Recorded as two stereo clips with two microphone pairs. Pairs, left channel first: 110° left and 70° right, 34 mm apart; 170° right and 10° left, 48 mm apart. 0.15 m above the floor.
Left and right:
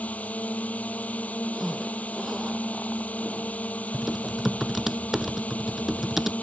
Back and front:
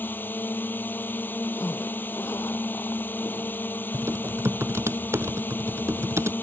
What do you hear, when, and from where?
0.0 s a drone: 150° left
1.5 s a zipper: 150° right
3.9 s typing on a keyboard: 10° left